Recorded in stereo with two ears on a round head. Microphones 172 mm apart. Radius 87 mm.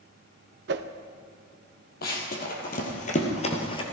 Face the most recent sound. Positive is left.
turn(degrees=25)  # may be behind; listen again after turning